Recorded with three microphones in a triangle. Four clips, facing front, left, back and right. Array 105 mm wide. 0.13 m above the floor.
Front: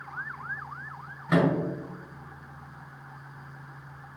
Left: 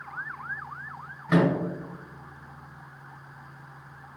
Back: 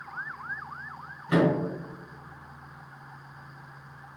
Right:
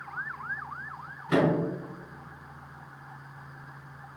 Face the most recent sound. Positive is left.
turn(degrees=35)